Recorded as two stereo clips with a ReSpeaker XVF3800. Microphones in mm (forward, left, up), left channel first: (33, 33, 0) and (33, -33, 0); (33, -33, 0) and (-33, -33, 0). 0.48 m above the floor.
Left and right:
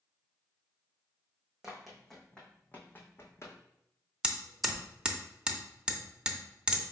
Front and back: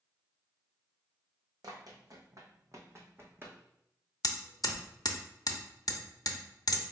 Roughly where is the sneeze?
I don't hear a sneeze.